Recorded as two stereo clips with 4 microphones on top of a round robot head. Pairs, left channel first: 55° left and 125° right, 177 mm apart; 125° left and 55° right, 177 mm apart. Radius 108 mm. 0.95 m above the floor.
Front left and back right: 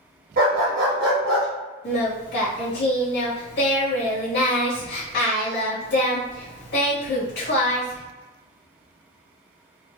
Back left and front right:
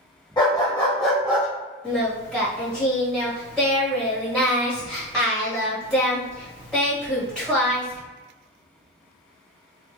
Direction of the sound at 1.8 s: 40° left.